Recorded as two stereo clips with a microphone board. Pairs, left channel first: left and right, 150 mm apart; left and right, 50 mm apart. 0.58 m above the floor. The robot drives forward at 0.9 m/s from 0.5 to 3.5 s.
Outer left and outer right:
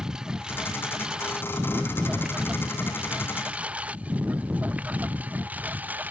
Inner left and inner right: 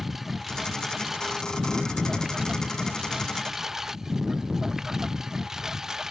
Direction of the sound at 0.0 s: 5° right (ahead or behind).